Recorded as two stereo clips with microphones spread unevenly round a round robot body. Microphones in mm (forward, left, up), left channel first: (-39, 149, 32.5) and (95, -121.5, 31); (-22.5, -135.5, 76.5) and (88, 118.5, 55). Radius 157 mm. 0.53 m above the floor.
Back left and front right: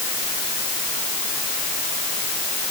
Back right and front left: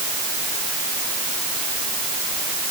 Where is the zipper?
I don't hear a zipper.